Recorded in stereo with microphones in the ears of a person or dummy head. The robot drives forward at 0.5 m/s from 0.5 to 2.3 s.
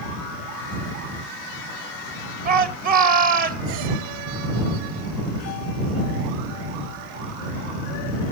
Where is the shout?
60° right (ahead or behind), 1.7 m.